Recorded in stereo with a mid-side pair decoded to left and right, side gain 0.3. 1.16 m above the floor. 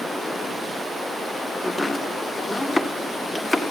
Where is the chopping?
30° left, 1.8 m.